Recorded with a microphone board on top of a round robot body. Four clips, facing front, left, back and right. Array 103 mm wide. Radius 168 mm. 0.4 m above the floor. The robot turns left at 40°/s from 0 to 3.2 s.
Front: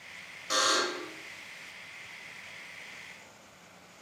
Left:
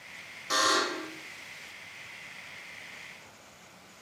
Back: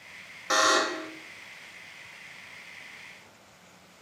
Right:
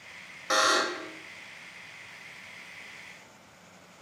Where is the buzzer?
140° right, 1.3 m; by 1.1 s 165° right, 1.3 m.